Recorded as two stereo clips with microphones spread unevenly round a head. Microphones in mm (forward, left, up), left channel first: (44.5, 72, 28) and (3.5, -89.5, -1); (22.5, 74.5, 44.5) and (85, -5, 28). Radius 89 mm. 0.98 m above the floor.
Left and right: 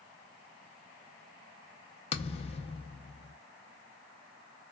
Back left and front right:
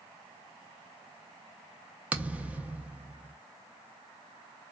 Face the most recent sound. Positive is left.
turn(degrees=30)